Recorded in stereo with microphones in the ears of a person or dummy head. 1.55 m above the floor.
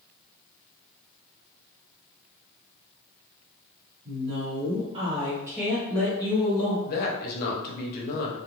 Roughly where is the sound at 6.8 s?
Left.